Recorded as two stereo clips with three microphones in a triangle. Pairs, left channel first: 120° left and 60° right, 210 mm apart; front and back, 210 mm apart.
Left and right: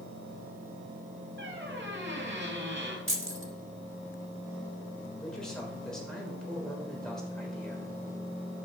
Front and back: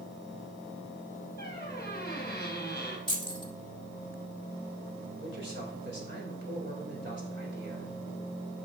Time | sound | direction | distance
1.4 | a squeak | 35° right | 2.5 m
3.1 | keys jangling | 65° right | 1.3 m
5.2 | a man speaking | 155° right | 3.5 m